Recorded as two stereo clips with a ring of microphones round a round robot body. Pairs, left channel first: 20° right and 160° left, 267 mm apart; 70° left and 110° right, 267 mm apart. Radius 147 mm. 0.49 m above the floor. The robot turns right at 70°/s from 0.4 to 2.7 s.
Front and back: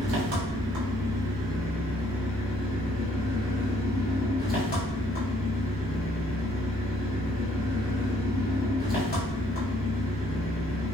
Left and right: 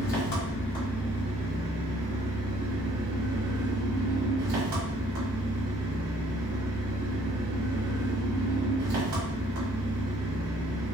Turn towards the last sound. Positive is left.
turn(degrees=-80)